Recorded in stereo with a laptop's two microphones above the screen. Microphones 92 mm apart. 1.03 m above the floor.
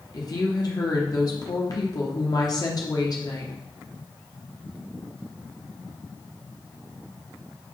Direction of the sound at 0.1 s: 40° left (ahead or behind).